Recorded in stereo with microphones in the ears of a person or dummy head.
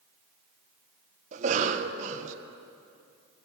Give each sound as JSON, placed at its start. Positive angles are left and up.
{"t": 1.3, "sound": "a cough", "side_deg": -40, "distance_m": 1.6}